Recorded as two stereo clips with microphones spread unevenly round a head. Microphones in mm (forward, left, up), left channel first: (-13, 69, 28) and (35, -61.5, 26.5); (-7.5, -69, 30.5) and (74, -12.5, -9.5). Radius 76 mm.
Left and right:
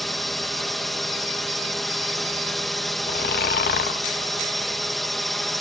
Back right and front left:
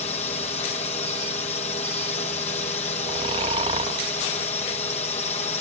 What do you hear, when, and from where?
0.0 s a drone: 160° right
3.1 s snoring: 85° left